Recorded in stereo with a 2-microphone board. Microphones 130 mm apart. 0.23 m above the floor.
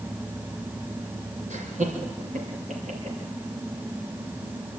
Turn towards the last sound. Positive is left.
turn(degrees=-65)  # may be behind; listen again after turning